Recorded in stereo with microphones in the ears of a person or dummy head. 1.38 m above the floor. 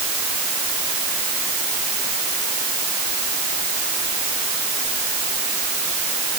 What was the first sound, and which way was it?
Only background noise.